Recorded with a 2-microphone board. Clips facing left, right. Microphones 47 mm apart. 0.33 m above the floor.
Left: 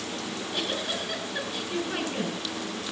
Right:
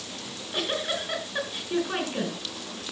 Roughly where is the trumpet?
I don't hear a trumpet.